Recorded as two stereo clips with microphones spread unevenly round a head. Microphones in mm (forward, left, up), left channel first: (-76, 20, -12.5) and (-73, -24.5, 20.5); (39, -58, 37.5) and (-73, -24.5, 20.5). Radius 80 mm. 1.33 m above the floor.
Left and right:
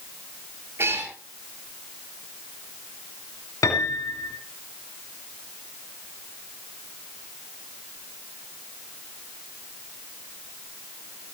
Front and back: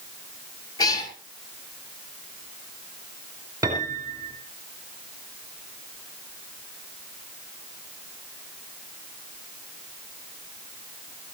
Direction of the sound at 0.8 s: 75° right.